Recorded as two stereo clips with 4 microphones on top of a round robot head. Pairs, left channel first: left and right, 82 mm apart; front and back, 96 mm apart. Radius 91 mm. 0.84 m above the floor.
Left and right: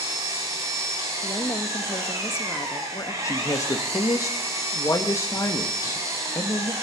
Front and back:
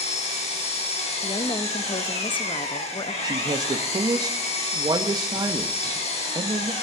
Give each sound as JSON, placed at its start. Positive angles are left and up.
{"t": 0.0, "sound": "an engine running", "azimuth_deg": -25, "distance_m": 3.0}
{"t": 1.2, "sound": "a woman speaking", "azimuth_deg": 30, "distance_m": 0.9}
{"t": 3.2, "sound": "a man speaking", "azimuth_deg": 135, "distance_m": 1.3}